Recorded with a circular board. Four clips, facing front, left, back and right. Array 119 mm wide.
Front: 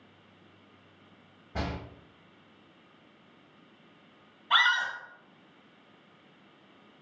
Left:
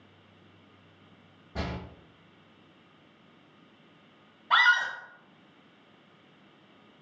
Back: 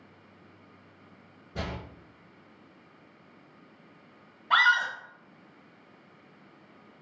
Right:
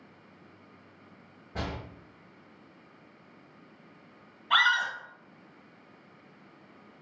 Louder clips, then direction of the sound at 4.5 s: Left 2 dB, back 3 dB; 140° left.